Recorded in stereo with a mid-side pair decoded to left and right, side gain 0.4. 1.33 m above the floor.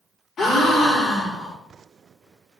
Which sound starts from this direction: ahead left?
A gasp, at 0.4 s.